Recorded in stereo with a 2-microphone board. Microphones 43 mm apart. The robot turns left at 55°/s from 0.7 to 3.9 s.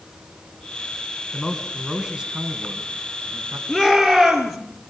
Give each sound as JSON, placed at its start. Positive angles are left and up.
{"t": 1.3, "sound": "a man speaking", "azimuth_deg": 20, "distance_m": 4.0}
{"t": 3.7, "sound": "a shout", "side_deg": 15, "distance_m": 6.0}